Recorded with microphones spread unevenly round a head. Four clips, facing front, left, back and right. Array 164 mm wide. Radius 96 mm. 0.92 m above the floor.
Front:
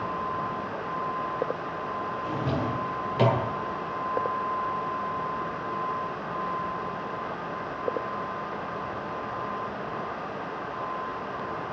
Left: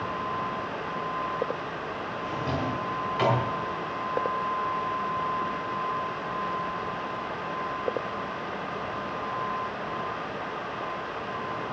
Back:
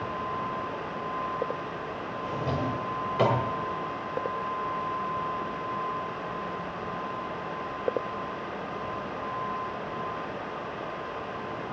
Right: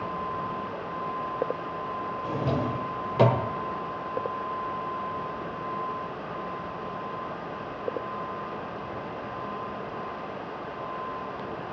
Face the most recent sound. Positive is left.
turn(degrees=-105)